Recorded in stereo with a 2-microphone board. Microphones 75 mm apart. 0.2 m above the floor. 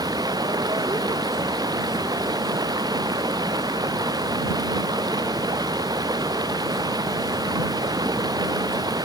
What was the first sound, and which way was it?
Running water, 65° right (ahead or behind).